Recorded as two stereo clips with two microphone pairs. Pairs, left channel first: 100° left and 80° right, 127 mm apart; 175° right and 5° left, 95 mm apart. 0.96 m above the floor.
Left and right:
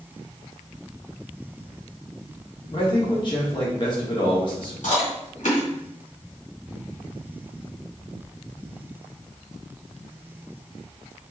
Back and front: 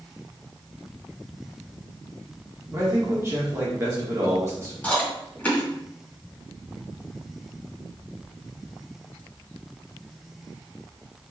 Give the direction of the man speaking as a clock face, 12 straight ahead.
10 o'clock.